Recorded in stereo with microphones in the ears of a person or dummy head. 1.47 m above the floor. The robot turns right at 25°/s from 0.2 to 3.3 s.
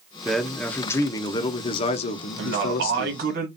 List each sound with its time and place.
0.2 s a man speaking: straight ahead, 0.6 m; by 3.2 s 75° left, 0.6 m
2.4 s a man speaking: 75° right (ahead or behind), 1.3 m; by 3.5 s 55° right (ahead or behind), 1.3 m